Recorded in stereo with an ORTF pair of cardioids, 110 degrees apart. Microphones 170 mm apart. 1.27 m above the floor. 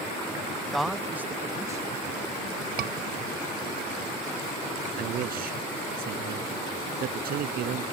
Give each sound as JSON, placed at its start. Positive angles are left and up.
{"t": 0.7, "sound": "a man speaking", "azimuth_deg": 5}
{"t": 2.8, "sound": "a scream", "azimuth_deg": -65}
{"t": 5.0, "sound": "a man speaking", "azimuth_deg": -60}